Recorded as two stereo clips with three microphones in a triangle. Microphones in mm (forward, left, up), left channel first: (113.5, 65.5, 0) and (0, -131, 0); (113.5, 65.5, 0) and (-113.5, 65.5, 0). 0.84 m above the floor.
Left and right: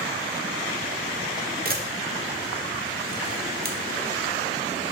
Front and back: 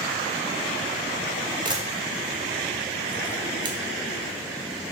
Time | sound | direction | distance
1.6 | a camera shutter | 120° right | 0.5 m